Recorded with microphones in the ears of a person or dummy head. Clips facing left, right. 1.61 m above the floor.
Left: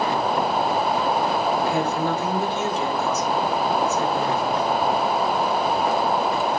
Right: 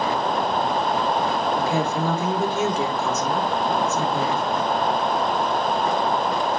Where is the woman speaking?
75° right (ahead or behind), 4 m; by 4.4 s 85° right, 5.5 m.